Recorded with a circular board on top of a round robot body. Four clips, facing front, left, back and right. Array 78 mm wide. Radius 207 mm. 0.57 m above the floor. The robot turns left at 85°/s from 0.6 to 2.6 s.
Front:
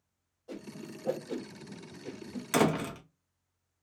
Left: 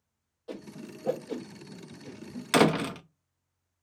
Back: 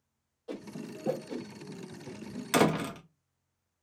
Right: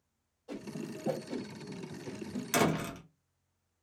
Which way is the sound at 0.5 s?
120° left.